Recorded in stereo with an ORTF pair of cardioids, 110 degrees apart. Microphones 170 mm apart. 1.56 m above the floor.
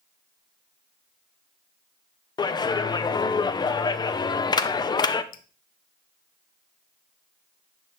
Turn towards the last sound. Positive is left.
turn(degrees=55)